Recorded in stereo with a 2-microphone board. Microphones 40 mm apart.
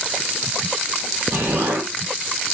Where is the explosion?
65° right (ahead or behind), 3.5 m.